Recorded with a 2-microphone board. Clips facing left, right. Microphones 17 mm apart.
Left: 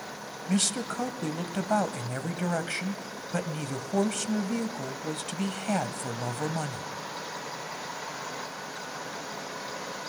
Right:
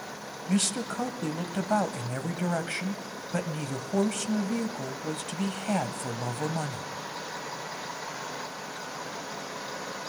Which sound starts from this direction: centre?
A man speaking, at 0.5 s.